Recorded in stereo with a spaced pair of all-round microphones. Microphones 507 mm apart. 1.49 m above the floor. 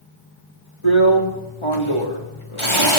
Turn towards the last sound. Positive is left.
turn(degrees=70)  # may be behind; listen again after turning